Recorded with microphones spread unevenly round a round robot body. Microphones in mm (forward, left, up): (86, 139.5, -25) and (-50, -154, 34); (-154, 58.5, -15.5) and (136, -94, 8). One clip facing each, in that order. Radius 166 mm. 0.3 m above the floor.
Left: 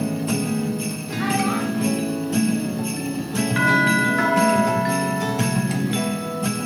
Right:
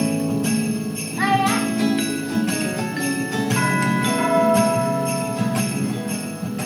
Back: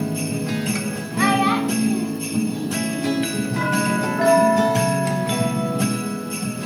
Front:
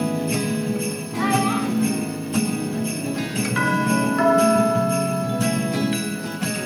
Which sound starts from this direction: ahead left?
A doorbell, at 3.6 s.